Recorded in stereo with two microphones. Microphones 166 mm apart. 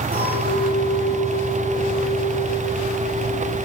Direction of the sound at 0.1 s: 65° right (ahead or behind).